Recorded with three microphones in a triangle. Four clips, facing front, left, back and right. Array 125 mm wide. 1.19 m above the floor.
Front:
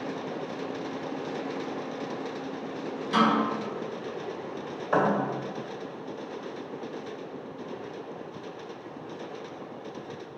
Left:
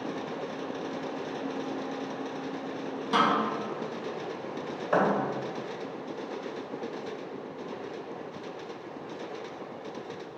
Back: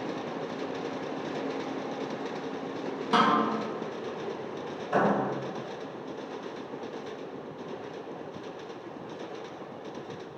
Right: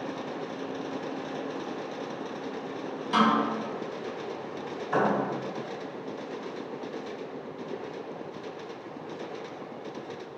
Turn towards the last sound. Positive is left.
turn(degrees=50)